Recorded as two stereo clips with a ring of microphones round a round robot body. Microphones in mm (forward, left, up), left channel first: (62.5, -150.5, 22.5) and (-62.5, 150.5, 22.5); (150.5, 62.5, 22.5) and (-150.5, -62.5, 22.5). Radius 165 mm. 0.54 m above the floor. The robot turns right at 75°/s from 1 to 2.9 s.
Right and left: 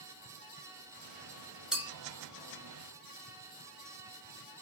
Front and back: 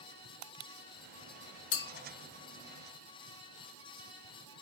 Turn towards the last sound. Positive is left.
turn(degrees=115)